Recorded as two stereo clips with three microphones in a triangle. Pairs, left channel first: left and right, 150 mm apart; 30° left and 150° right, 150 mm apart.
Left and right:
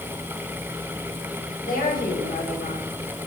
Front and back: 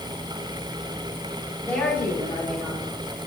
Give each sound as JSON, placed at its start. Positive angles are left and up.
{"t": 1.6, "sound": "a woman speaking", "azimuth_deg": 110, "distance_m": 9.0}